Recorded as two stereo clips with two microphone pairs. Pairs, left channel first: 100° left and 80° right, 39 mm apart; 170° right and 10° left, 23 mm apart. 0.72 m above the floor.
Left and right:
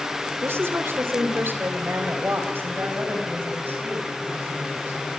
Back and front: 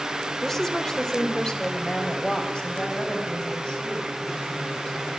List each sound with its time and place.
0.4 s a woman speaking: 90° right, 2.0 m; by 5.2 s 125° right, 7.5 m